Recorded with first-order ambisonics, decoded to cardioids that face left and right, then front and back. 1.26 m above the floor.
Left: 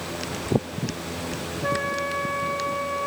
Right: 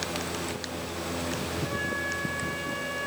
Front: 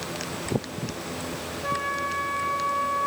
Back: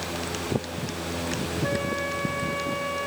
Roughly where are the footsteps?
No footsteps in this recording.